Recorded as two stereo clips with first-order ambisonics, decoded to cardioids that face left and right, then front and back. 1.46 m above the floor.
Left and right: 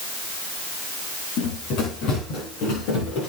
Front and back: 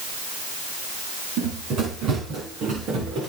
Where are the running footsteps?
125° left, 9.5 m; by 3.3 s 130° left, 9.5 m.